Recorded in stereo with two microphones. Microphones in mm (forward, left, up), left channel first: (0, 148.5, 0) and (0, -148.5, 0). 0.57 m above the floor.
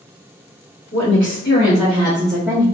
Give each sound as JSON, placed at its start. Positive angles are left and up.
{"t": 0.9, "sound": "a woman speaking", "side_deg": 50, "distance_m": 1.1}